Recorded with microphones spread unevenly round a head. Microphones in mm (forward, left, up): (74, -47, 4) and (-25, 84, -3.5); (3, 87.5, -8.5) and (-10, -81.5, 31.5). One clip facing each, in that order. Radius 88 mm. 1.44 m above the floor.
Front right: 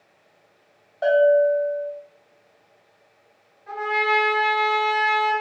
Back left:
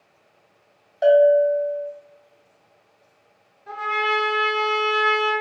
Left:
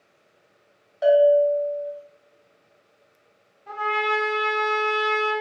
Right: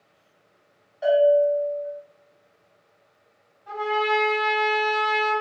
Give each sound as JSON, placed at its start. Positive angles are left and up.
{"t": 1.0, "sound": "a bell", "azimuth_deg": 75, "distance_m": 0.8}
{"t": 3.7, "sound": "a trumpet", "azimuth_deg": 150, "distance_m": 0.9}